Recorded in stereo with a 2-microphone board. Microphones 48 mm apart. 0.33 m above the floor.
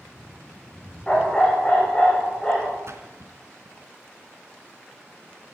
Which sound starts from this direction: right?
A splash, at 2.9 s.